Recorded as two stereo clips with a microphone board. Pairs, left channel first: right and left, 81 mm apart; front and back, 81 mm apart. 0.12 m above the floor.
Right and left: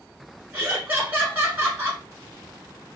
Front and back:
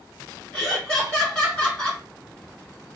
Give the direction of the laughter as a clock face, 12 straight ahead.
10 o'clock.